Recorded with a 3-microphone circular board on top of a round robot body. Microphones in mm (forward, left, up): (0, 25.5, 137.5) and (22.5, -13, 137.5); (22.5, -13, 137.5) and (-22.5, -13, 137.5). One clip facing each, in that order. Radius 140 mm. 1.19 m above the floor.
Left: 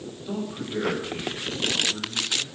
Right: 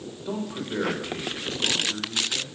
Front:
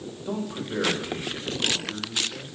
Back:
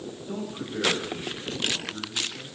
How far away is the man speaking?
About 6 m.